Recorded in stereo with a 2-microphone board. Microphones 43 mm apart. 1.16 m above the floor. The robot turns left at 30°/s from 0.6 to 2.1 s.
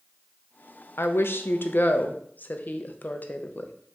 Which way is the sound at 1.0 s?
80° left.